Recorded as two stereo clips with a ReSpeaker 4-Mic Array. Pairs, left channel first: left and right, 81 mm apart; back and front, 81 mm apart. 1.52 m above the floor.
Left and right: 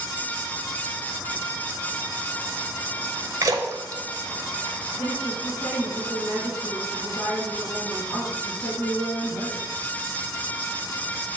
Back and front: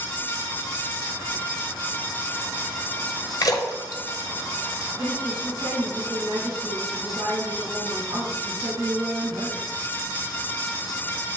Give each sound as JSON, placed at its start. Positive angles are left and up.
{"t": 3.4, "sound": "a splash", "azimuth_deg": -140, "distance_m": 1.1}
{"t": 5.0, "sound": "a woman speaking", "azimuth_deg": 40, "distance_m": 2.5}